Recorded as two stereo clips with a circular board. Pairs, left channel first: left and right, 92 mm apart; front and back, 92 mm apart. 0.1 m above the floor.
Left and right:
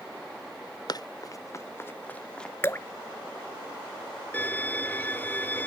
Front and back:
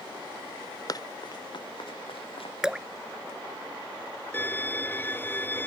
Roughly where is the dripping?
Left.